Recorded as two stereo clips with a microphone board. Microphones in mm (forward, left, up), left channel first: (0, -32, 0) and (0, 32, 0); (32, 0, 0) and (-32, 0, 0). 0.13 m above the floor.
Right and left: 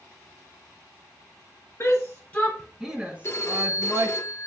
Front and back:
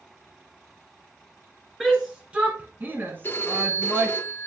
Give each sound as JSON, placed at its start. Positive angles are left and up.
{"t": 1.8, "sound": "a shout", "azimuth_deg": -100, "distance_m": 1.7}
{"t": 3.2, "sound": "a phone ringing", "azimuth_deg": -50, "distance_m": 1.1}